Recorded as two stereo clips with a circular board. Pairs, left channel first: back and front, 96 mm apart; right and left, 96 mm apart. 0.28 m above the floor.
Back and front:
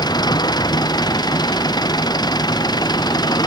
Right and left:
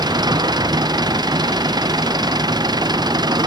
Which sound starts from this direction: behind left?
An engine running, at 0.0 s.